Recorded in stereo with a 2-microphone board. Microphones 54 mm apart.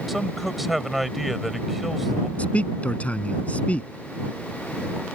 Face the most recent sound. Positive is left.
turn(degrees=25)  # may be behind; listen again after turning